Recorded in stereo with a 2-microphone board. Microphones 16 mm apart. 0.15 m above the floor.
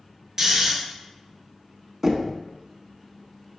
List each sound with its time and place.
0.4 s snoring: 25° right (ahead or behind), 1.2 m
2.0 s knocking: 15° right (ahead or behind), 0.7 m